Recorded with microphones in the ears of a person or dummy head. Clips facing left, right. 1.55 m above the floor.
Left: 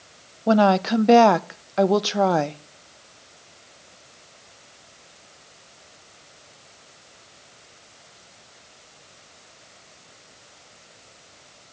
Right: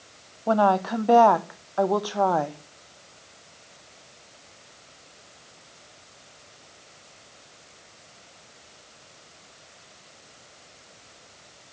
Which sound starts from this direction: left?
A woman speaking, at 0.5 s.